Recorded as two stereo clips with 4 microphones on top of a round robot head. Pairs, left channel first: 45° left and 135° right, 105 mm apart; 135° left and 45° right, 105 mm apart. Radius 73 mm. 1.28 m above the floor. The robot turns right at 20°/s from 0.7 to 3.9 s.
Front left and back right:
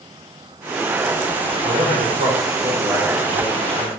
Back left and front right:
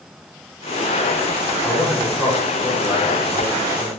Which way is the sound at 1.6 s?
145° right.